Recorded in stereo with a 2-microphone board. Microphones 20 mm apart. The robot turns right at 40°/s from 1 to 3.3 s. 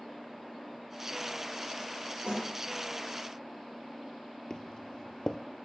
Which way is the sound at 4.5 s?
40° left (ahead or behind).